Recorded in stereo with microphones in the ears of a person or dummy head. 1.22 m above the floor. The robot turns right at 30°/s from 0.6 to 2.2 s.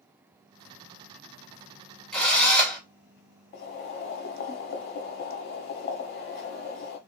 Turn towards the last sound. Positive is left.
turn(degrees=40)  # may be behind; listen again after turning